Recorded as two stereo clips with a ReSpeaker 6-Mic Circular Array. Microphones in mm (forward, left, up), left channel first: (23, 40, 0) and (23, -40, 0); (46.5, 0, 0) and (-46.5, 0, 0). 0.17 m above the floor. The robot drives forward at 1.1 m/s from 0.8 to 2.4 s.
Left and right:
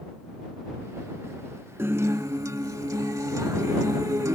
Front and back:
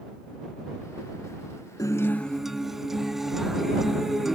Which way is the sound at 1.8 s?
40° right.